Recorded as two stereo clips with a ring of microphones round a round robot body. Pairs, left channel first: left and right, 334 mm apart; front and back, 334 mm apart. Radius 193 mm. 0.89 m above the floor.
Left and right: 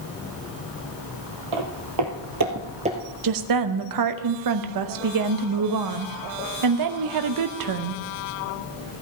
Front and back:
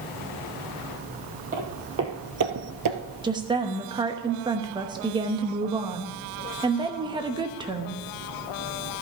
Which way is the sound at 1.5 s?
110° right.